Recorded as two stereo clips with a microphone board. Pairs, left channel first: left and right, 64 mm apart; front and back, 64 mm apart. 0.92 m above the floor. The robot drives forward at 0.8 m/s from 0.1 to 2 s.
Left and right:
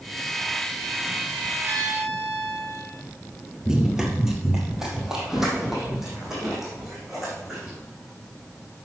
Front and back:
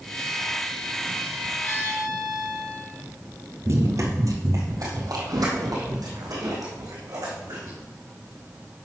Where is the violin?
40° right, 3 m; by 3.0 s 45° right, 2.5 m.